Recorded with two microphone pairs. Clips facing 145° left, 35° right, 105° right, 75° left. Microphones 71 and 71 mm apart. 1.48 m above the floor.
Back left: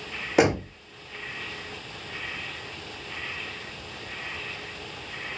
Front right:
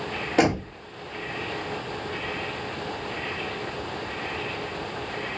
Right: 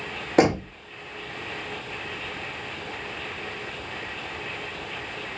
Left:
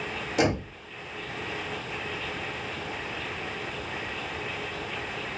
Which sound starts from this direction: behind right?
Knocking, at 0.4 s.